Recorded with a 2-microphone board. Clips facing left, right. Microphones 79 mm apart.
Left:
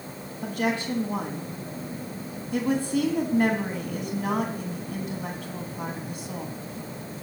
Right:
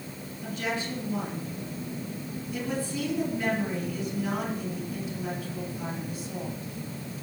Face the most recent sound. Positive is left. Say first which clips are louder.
# left 5 dB
turn(degrees=65)  # may be behind; listen again after turning